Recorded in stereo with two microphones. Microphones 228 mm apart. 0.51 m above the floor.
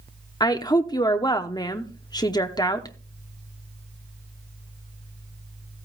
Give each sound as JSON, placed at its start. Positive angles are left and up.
{"t": 0.4, "sound": "a woman speaking", "side_deg": 20, "distance_m": 0.7}